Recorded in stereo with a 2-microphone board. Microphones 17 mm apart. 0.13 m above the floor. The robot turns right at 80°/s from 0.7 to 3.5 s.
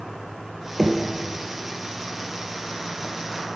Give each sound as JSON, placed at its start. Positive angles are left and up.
{"t": 0.8, "sound": "knocking", "side_deg": 0, "distance_m": 1.8}